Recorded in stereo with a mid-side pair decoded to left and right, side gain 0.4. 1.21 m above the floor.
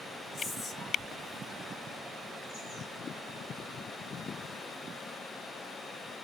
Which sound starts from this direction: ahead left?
Whispering, at 0.3 s.